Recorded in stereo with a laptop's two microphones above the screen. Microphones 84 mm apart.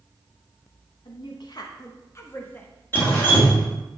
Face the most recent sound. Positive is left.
turn(degrees=25)  # may be behind; listen again after turning